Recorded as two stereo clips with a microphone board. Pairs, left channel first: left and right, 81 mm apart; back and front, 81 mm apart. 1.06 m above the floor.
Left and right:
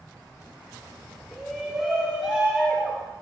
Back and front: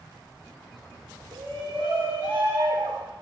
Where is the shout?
Straight ahead, 5 m; by 3.1 s 5° right, 4 m.